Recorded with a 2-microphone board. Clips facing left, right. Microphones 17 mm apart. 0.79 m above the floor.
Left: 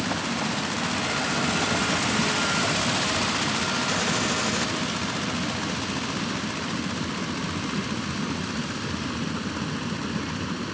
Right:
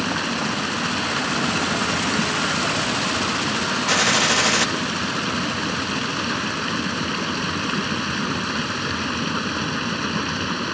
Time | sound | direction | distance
0.0 | running water | 35° right (ahead or behind) | ?
3.9 | a gunshot | 40° right (ahead or behind) | ?